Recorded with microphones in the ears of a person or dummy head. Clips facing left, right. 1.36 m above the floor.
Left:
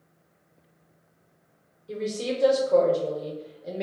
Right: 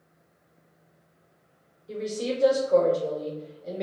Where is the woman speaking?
Centre (ahead or behind), 0.9 m.